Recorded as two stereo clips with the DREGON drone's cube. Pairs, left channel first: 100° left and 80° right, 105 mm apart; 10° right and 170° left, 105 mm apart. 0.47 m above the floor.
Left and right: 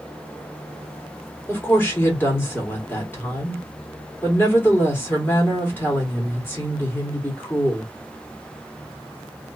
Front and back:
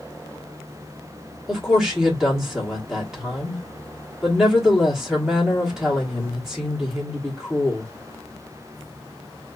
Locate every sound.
1.5 s a woman speaking: 90° left, 1.2 m